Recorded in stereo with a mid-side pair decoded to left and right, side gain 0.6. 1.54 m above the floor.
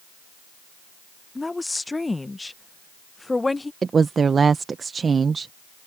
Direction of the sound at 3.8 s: 30° right.